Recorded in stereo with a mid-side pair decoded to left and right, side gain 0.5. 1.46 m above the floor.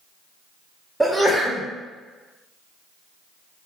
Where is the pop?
No pop in this recording.